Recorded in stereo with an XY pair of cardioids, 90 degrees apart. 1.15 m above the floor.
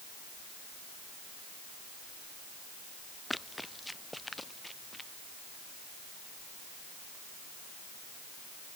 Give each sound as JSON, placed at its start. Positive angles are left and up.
{"t": 3.3, "sound": "running footsteps", "azimuth_deg": 10}